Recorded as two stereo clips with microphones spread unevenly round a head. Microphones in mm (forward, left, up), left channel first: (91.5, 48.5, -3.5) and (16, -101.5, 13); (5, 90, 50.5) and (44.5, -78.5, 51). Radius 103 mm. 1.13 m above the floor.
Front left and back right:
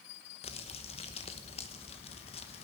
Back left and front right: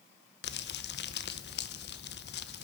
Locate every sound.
0.4 s crumpling: 120° left, 0.9 m